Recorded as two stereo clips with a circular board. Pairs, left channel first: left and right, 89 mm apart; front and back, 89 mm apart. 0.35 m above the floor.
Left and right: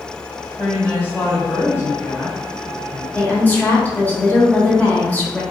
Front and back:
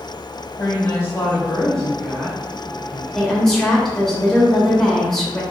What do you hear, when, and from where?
0.6 s a woman speaking: 25° left, 1.3 m; by 3.0 s 130° left, 1.2 m
3.1 s a woman speaking: 75° left, 0.8 m